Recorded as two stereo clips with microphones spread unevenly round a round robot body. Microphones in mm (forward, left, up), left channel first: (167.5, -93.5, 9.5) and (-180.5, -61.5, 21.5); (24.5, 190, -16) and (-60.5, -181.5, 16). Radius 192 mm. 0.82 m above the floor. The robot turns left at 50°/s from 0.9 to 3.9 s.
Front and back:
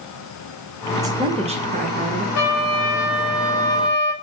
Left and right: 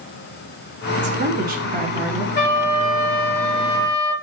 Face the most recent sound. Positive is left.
turn(degrees=-60)